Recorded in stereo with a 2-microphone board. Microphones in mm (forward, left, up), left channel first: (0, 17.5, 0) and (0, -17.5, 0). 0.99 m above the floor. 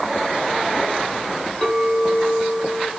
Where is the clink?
15° right (ahead or behind), 5.5 m.